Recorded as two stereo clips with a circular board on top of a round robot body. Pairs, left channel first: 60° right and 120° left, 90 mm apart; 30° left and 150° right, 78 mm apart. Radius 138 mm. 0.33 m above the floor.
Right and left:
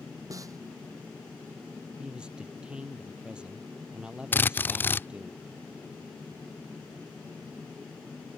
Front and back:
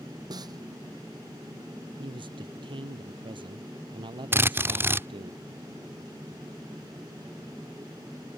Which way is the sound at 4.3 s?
110° right.